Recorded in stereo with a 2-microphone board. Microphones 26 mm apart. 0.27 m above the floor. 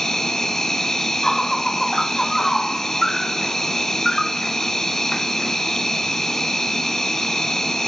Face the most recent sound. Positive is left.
turn(degrees=20)  # may be behind; listen again after turning